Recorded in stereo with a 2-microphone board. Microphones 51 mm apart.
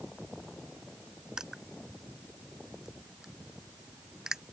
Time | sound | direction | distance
1.4 | crushing | 10° right (ahead or behind) | ?